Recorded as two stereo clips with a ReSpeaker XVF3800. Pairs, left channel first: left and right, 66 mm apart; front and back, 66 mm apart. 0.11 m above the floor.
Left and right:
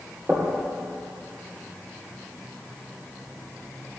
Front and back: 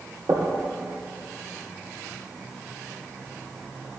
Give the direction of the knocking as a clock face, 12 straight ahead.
5 o'clock.